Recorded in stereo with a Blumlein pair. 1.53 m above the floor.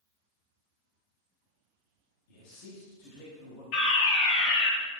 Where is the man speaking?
45° left, 4 m.